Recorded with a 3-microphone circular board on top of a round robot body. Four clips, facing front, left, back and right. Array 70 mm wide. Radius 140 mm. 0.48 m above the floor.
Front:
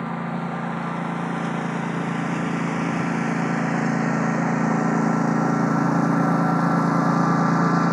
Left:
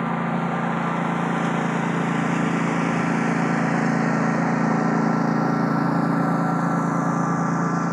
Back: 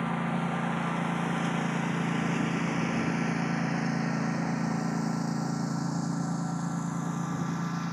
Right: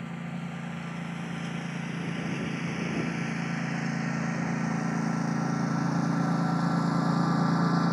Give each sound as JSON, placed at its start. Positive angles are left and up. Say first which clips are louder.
{"t": 0.0, "sound": "a lawn mower", "louder": "left 14 dB, front 3 dB", "azimuth_deg": 75}